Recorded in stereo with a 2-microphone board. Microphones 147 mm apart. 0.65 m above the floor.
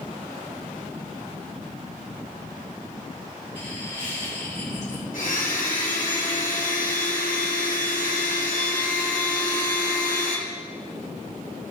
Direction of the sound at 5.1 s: 70° left (ahead or behind).